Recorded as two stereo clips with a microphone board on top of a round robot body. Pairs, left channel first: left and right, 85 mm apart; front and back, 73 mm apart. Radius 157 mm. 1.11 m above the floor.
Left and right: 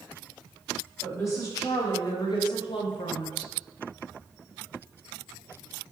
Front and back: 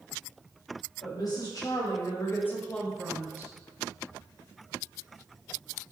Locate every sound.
1.0 s a woman speaking: 30° left, 2.5 m; by 3.5 s 125° left, 1.2 m